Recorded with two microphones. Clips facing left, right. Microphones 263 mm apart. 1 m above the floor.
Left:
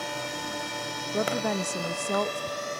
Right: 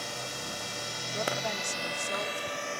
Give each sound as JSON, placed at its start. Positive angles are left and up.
{"t": 0.0, "sound": "a drone", "side_deg": 70}
{"t": 1.1, "sound": "a woman speaking", "side_deg": 60}